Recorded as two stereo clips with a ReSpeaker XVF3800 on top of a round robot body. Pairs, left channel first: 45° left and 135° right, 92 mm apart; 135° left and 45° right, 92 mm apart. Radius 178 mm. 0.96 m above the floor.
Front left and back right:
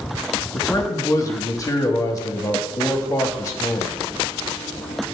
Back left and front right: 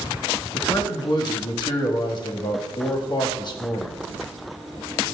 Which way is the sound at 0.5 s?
100° left.